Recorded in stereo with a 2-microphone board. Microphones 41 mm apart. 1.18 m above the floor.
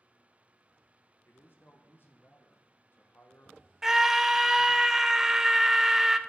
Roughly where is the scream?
Centre.